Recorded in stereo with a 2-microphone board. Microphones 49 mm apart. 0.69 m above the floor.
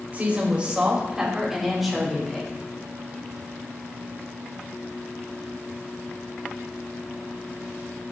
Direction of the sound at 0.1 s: 35° right (ahead or behind).